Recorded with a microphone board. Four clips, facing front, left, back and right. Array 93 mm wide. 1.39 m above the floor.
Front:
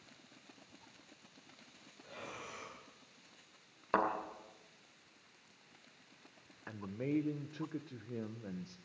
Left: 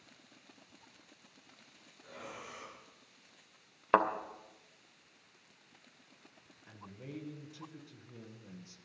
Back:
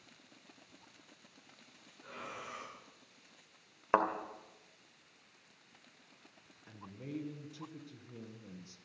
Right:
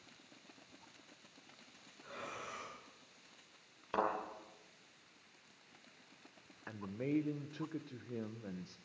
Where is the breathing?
150° right, 9.5 m.